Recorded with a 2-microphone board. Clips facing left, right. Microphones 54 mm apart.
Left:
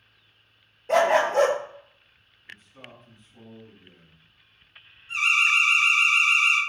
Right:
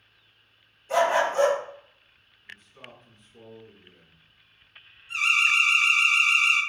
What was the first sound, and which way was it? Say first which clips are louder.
A dog barking: left 2 dB; 65° left (ahead or behind).